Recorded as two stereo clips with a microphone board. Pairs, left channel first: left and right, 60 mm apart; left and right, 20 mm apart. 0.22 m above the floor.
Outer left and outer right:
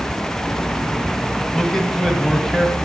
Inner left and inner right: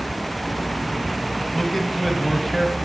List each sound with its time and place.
1.5 s a man speaking: 5° left (ahead or behind), 1.6 m